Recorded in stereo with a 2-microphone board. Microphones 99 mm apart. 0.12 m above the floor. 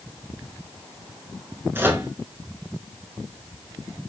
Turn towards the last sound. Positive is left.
turn(degrees=-25)  # may be behind; listen again after turning